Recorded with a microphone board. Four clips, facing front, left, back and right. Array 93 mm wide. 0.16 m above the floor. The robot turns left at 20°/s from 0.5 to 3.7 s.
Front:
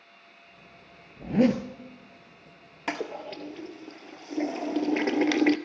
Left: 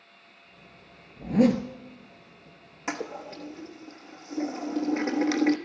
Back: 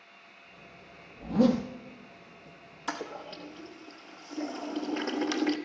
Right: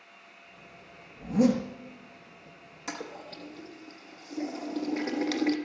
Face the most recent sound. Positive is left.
turn(degrees=15)